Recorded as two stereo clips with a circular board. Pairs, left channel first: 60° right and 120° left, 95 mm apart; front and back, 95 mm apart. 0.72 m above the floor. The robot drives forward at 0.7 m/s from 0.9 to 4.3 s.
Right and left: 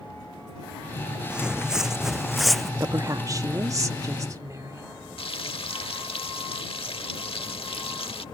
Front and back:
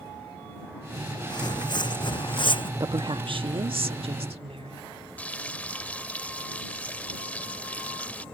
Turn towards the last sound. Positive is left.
turn(degrees=-75)